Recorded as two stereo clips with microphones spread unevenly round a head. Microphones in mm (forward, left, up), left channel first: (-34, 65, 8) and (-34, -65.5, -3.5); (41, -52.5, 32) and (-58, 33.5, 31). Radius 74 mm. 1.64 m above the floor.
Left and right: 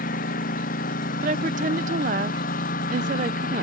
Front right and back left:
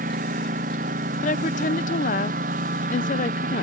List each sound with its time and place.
0.0 s a lawn mower: 110° left
1.2 s a woman speaking: 60° right